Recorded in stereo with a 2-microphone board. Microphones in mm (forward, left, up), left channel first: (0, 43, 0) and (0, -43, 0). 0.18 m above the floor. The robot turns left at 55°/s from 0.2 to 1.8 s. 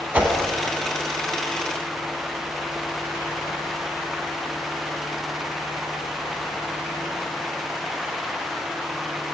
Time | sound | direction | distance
0.1 | a whoosh | 15° right (ahead or behind) | 0.6 m